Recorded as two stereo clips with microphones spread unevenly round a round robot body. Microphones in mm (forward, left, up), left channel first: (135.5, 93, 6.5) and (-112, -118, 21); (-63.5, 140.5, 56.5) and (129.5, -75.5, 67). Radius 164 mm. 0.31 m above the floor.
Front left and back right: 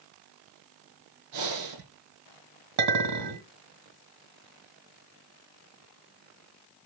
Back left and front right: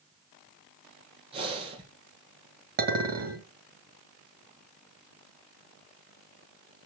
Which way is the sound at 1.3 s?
120° right.